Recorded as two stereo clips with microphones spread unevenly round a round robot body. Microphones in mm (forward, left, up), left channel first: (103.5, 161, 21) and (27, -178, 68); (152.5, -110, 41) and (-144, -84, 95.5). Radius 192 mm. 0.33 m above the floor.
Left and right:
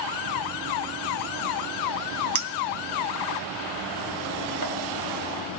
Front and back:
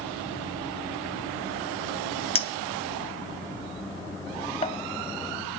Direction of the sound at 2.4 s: 70° right.